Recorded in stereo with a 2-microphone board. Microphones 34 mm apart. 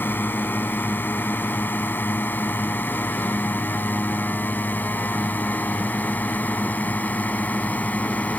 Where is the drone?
80° left; by 8.4 s 55° left (ahead or behind).